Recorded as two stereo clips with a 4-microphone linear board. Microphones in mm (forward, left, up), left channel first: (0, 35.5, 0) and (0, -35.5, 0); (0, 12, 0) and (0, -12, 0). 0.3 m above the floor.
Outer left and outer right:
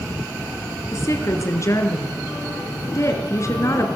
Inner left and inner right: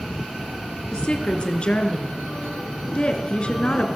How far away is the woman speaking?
About 4.5 m.